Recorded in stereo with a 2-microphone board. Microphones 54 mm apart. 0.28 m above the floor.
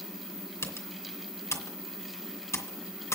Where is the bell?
No bell in this recording.